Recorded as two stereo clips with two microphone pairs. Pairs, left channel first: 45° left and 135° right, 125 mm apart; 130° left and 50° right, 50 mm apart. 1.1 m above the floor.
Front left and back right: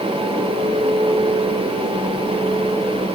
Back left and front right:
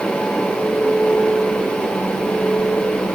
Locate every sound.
Only background noise.